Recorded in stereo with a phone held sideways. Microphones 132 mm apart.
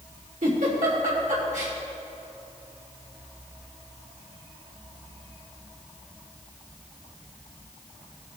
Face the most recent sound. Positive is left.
turn(degrees=-70)  # may be behind; listen again after turning